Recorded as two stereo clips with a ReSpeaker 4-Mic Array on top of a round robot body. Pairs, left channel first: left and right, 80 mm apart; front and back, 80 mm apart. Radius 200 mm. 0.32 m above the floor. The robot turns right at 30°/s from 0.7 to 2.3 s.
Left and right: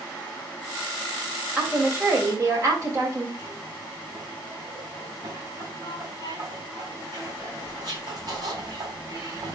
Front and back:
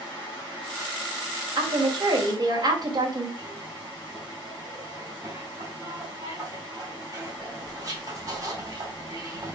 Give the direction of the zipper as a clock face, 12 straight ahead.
4 o'clock.